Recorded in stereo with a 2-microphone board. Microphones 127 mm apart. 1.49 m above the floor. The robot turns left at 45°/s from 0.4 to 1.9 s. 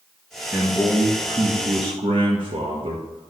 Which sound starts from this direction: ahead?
A man speaking, at 0.5 s.